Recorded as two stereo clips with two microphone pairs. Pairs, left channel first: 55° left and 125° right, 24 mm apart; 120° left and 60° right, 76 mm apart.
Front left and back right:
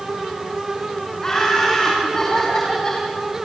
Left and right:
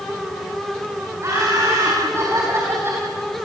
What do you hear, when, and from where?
1.2 s laughter: 10° right, 5.5 m; by 3.0 s 5° right, 3 m